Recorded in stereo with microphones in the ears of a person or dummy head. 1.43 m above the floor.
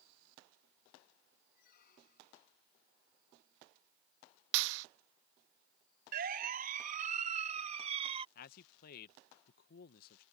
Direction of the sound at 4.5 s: 75° right (ahead or behind).